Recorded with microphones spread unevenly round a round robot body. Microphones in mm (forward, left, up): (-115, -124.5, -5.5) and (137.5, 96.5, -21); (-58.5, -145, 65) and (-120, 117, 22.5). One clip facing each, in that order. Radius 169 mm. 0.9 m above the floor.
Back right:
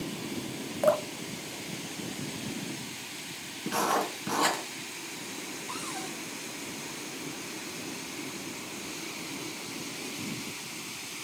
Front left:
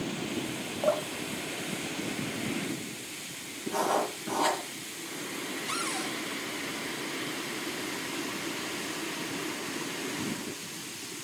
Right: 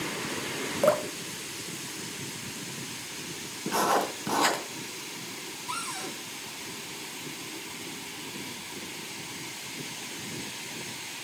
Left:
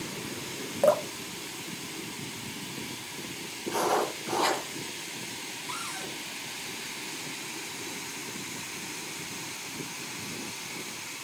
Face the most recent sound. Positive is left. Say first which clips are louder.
# front left 3 dB, right 2 dB
turn(degrees=-10)